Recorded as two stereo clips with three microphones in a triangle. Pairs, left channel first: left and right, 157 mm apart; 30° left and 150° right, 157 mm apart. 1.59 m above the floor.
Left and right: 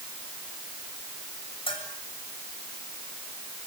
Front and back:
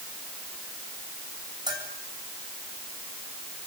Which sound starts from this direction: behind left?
A bell, at 1.7 s.